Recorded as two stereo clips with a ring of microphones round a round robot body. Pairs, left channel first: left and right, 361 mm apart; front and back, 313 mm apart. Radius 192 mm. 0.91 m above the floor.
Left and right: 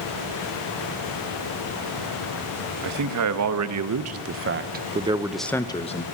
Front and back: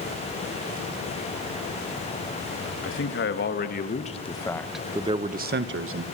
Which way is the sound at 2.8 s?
50° right.